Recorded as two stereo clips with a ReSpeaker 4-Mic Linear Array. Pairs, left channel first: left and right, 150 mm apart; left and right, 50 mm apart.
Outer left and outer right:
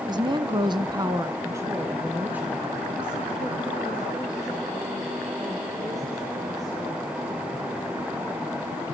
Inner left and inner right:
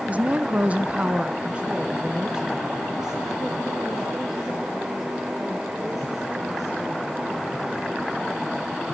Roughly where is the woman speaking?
Right.